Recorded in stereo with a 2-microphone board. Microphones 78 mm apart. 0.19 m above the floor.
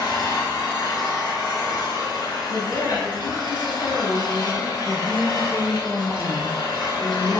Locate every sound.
0.0 s an engine running: 65° left (ahead or behind), 0.9 m
2.5 s a woman speaking: 20° left (ahead or behind), 1.0 m
4.8 s a woman speaking: 10° right (ahead or behind), 1.2 m